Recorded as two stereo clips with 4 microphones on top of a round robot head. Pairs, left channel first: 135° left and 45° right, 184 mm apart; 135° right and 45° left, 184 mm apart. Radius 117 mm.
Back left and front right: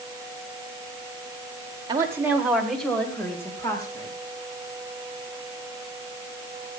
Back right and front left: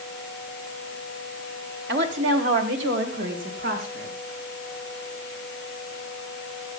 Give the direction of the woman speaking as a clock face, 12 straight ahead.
11 o'clock.